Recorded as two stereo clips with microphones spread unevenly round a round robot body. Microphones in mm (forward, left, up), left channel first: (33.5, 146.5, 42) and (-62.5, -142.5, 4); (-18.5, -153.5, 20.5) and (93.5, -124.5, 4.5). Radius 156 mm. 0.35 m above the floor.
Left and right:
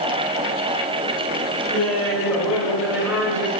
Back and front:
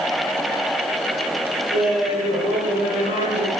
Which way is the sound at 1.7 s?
155° left.